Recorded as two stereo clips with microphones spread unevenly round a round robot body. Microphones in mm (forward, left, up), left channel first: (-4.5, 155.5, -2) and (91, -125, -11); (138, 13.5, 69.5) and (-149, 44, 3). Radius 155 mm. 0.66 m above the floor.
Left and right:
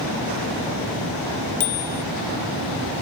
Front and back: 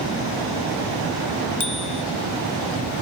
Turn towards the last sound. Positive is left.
turn(degrees=70)